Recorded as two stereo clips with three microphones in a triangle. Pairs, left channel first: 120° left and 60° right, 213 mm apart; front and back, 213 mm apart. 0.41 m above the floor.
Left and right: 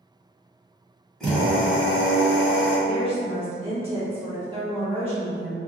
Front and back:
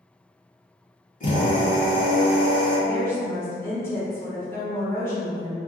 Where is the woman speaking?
65° right, 0.8 m.